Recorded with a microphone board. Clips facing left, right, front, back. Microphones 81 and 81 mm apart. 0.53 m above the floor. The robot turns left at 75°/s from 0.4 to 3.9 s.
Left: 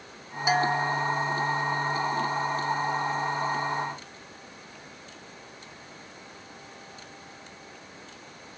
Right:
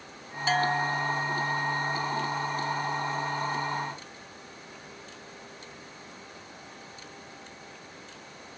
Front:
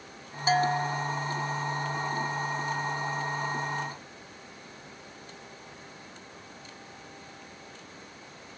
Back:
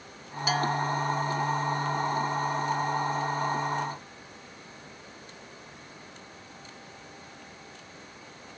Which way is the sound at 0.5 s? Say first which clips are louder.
Left 2 dB, front 2 dB; 30° left.